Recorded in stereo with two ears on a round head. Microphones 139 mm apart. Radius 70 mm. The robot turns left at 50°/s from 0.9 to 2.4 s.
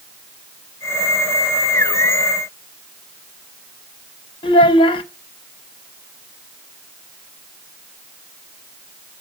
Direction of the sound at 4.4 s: 30° left (ahead or behind).